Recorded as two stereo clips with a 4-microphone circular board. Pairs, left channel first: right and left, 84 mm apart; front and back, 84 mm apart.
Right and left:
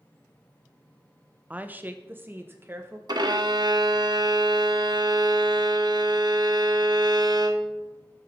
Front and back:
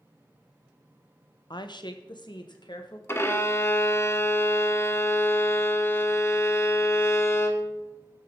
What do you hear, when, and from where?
1.5 s a woman speaking: 20° left, 0.7 m; by 3.0 s 30° left, 1.5 m
3.1 s a violin: 60° left, 1.0 m